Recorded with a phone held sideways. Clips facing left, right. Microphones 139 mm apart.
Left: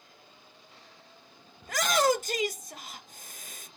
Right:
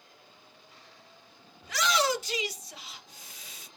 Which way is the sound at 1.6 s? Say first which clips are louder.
Left 3 dB; 50° left (ahead or behind).